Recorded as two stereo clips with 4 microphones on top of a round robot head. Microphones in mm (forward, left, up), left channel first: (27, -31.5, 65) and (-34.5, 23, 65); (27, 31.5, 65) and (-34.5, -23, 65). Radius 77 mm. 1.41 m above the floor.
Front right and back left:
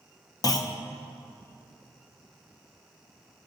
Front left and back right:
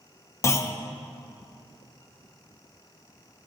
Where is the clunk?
10° right, 0.6 m.